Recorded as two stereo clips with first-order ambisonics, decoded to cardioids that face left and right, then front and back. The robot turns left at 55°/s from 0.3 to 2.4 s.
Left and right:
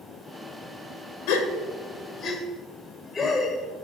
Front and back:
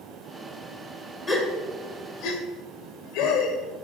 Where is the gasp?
70° left, 1.9 m; by 3.5 s 10° left, 1.9 m.